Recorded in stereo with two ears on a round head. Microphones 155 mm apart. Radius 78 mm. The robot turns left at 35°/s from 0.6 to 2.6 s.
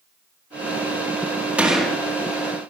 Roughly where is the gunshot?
Centre.